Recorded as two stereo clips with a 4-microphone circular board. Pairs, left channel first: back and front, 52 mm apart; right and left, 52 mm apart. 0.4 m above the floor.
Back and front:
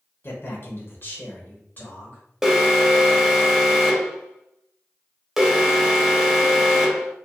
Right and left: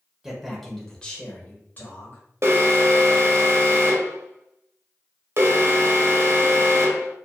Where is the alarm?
85° left, 0.8 m.